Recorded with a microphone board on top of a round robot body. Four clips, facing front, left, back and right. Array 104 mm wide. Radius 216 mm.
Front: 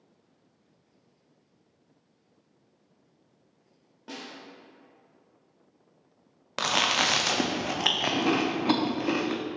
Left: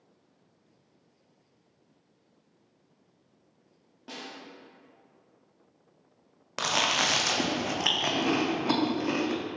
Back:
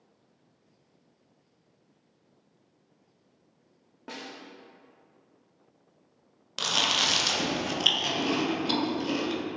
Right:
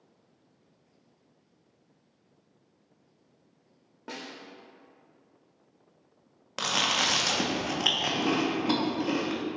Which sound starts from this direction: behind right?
A snare drum, at 4.1 s.